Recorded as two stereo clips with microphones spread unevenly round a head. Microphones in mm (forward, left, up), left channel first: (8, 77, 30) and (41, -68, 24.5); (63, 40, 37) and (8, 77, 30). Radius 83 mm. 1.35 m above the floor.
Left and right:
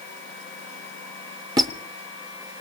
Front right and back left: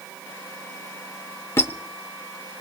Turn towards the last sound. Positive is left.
turn(degrees=-25)